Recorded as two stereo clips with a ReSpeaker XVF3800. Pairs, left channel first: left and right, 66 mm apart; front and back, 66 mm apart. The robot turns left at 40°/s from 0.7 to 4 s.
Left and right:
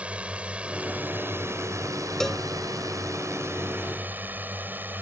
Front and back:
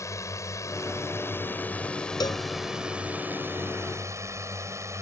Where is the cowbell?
5° left; by 2.4 s 5° right.